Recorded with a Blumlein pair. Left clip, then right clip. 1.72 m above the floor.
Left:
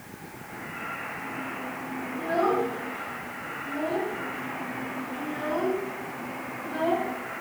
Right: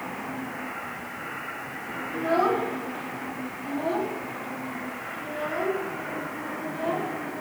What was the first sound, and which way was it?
A child speaking, 25° right.